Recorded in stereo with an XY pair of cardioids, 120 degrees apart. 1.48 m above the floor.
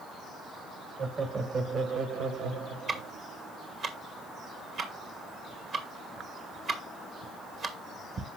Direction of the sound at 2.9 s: 45° right.